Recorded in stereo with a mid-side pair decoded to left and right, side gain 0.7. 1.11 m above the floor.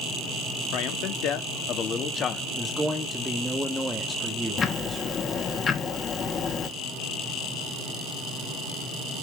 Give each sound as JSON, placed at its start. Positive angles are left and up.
{"t": 0.7, "sound": "a man speaking", "azimuth_deg": 70, "distance_m": 3.0}
{"t": 2.6, "sound": "a man speaking", "azimuth_deg": -5, "distance_m": 2.0}
{"t": 4.6, "sound": "ticking", "azimuth_deg": 35, "distance_m": 2.5}